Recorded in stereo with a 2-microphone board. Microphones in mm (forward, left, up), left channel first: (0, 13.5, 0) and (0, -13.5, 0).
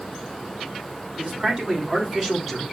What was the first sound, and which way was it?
A man speaking, 45° right (ahead or behind).